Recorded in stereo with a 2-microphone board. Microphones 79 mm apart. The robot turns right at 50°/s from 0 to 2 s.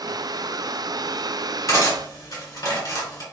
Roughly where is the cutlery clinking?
Left.